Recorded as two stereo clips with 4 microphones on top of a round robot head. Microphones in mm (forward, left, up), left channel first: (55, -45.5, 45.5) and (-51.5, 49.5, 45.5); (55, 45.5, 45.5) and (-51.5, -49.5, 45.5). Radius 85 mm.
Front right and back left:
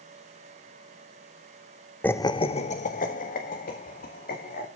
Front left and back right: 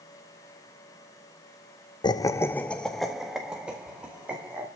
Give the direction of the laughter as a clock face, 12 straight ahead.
11 o'clock.